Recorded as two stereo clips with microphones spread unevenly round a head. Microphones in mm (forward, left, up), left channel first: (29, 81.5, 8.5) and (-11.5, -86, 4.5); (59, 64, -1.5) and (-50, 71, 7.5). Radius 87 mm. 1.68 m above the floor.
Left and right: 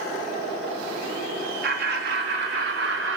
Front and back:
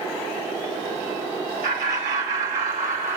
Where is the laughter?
145° right, 3.5 m; by 3.2 s 130° right, 3.5 m.